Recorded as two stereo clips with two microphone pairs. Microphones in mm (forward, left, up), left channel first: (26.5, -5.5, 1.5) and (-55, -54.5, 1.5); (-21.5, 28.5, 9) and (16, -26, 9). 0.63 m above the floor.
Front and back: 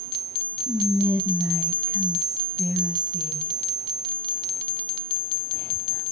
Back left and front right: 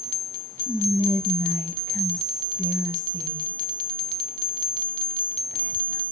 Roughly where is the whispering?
Ahead right.